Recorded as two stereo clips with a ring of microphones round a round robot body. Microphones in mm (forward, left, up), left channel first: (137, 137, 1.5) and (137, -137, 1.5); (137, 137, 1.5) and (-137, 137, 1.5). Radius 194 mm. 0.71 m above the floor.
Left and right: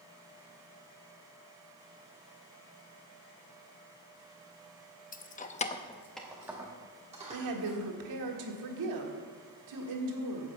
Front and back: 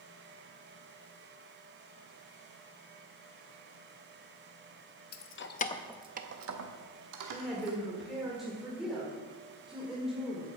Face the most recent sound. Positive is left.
turn(degrees=-90)